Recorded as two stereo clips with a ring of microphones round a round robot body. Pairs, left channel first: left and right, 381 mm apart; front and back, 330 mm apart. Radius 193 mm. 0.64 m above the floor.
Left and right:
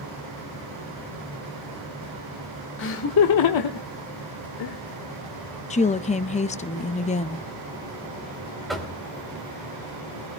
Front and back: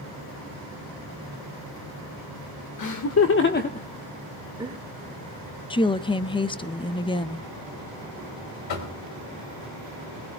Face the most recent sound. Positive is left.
turn(degrees=0)